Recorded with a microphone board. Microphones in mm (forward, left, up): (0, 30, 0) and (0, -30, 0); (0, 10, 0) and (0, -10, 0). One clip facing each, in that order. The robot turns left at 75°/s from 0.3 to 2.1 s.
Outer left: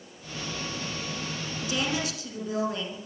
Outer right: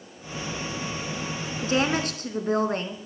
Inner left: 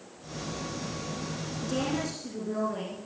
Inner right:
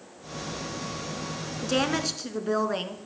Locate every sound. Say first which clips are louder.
1.6 s a woman speaking: outer right 6 dB, inner right 5 dB; 55° right, 2 m; by 3.0 s 90° right, 2 m